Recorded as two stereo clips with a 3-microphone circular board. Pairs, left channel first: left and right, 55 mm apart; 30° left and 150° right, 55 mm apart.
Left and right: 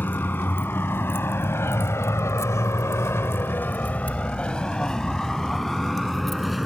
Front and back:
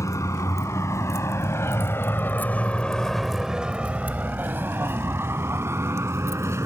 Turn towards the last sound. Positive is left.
turn(degrees=180)